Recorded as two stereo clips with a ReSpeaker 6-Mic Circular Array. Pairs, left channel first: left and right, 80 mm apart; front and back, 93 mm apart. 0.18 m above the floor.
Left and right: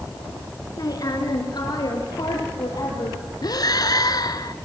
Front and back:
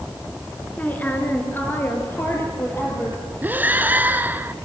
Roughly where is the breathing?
Left.